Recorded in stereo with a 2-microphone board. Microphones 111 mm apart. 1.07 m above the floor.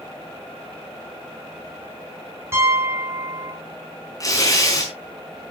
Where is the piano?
25° right (ahead or behind), 8 m.